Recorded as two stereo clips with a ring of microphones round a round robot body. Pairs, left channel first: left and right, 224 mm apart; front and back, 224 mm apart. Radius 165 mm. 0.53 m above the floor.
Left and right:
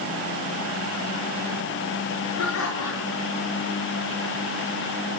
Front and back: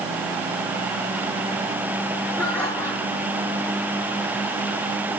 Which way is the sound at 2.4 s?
80° left.